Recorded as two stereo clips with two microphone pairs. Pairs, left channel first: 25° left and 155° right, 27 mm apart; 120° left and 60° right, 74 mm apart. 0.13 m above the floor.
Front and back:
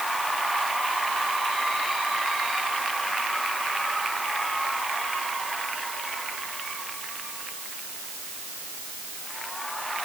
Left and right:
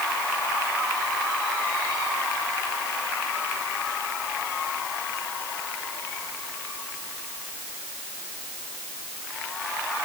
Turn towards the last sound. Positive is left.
No sound to turn to.